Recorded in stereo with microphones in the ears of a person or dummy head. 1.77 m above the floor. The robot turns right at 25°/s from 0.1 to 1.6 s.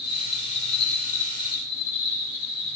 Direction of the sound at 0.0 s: 85° left.